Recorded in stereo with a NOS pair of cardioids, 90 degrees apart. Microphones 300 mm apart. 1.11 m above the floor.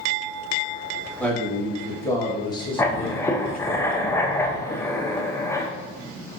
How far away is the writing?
About 0.6 m.